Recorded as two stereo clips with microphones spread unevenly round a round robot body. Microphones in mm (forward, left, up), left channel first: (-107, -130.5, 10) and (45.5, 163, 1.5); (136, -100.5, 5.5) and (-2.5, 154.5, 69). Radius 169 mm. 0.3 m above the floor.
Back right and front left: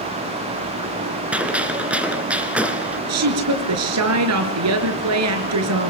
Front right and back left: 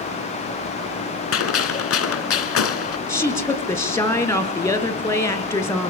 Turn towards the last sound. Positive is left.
turn(degrees=15)